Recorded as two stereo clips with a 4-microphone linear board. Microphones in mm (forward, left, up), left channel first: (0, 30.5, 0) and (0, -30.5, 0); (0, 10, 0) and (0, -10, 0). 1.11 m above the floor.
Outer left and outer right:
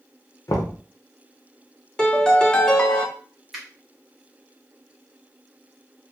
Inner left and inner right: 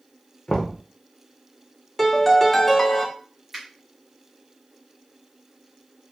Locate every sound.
0.5 s knocking: 65° left (ahead or behind), 0.7 m
2.0 s a piano: 15° left (ahead or behind), 0.5 m
3.5 s a finger snap: 5° right (ahead or behind), 1.4 m